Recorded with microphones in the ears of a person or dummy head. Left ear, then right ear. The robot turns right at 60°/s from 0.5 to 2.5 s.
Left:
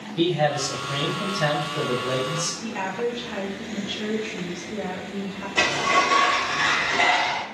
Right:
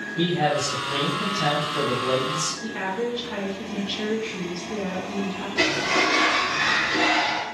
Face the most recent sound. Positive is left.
turn(degrees=45)  # may be behind; listen again after turning